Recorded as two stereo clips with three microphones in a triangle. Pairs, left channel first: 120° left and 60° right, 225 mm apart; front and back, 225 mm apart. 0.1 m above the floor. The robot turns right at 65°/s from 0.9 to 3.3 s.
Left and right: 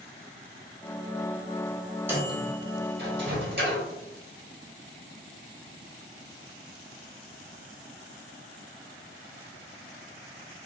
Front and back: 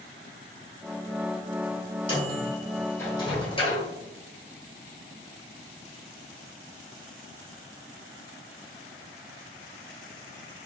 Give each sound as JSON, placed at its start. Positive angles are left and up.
{"t": 2.1, "sound": "a microwave", "azimuth_deg": -135, "distance_m": 1.4}